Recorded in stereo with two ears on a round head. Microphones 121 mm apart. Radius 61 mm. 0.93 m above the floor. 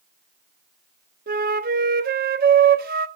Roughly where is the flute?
Right.